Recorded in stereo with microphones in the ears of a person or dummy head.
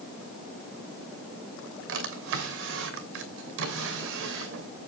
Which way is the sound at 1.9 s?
70° right (ahead or behind).